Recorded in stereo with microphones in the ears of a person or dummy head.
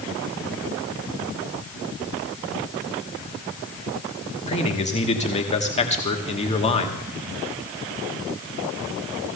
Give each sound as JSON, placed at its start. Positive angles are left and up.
{"t": 4.5, "sound": "a man speaking", "side_deg": 35, "distance_m": 1.1}